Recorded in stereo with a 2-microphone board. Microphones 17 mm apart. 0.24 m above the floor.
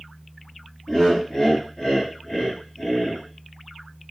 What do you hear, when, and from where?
0.9 s laughter: 60° left (ahead or behind), 3 m